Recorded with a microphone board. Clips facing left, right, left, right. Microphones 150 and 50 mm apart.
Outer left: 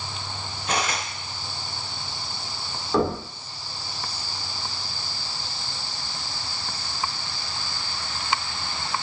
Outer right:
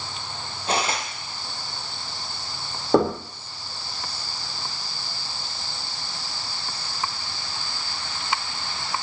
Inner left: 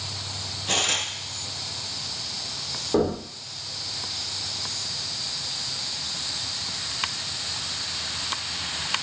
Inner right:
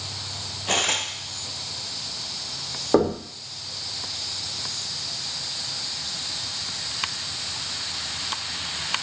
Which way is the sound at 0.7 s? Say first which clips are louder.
Outer right 2 dB, inner right 2 dB; 30° right (ahead or behind).